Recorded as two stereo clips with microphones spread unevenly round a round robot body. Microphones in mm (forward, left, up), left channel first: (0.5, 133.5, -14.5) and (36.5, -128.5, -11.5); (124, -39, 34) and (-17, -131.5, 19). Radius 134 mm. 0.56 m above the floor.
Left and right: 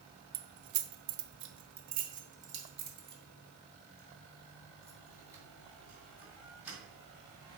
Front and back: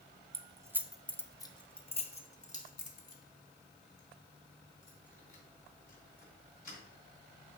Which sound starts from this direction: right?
Keys jangling, at 0.3 s.